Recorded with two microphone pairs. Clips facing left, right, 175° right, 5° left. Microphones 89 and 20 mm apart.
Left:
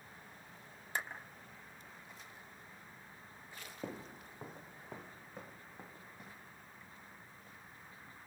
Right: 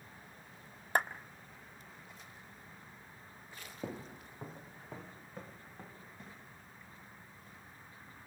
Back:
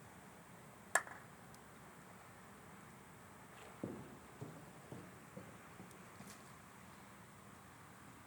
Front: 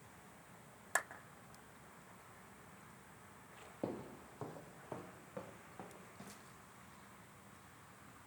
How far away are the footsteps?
About 0.8 m.